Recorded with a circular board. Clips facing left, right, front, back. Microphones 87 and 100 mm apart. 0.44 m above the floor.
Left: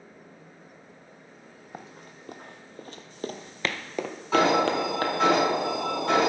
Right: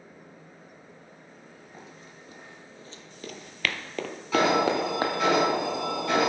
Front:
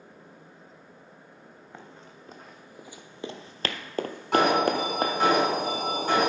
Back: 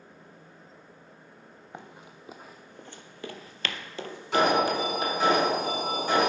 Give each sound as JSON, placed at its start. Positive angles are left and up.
{"t": 1.7, "sound": "running footsteps", "azimuth_deg": 105, "distance_m": 1.1}
{"t": 4.3, "sound": "an alarm", "azimuth_deg": 35, "distance_m": 4.5}